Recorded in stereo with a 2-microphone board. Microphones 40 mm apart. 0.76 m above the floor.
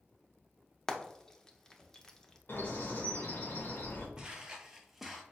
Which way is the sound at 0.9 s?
10° left (ahead or behind).